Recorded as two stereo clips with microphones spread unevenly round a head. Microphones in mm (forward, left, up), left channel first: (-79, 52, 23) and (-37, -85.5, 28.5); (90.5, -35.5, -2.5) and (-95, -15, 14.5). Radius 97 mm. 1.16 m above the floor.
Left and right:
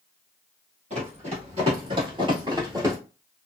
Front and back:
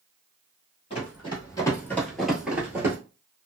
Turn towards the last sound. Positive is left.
turn(degrees=-125)